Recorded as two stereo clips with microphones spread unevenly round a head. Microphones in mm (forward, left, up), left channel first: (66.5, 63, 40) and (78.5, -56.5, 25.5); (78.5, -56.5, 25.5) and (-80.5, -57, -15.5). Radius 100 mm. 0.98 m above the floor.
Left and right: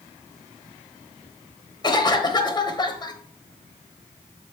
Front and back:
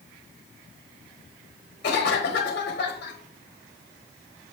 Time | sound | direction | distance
1.8 | a cough | 45° left | 1.0 m